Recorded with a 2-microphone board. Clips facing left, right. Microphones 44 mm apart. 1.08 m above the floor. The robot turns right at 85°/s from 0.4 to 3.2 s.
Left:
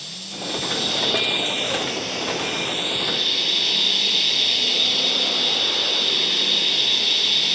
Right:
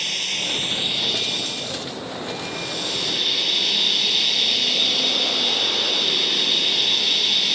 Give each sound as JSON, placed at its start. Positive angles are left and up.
{"t": 0.0, "sound": "running water", "azimuth_deg": -60}